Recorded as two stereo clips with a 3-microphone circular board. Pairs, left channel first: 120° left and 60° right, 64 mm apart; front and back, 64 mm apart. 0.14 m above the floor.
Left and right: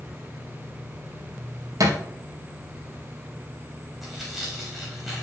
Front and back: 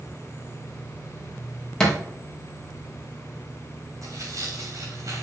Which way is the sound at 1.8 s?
80° right.